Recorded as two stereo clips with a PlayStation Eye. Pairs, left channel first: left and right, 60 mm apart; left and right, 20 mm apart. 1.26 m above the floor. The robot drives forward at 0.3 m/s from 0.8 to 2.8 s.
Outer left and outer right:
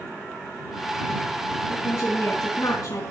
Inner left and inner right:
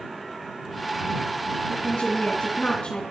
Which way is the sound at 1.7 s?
65° left (ahead or behind).